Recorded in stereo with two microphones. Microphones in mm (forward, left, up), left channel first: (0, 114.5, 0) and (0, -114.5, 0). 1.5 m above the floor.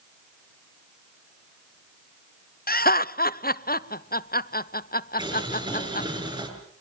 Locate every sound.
2.7 s laughter: 40° left (ahead or behind), 0.7 m
5.2 s boiling: 20° right (ahead or behind), 6.5 m